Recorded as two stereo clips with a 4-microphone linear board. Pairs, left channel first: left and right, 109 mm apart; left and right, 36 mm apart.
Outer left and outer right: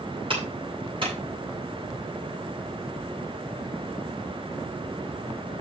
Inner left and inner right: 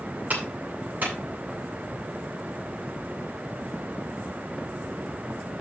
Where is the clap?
50° right (ahead or behind), 8 m.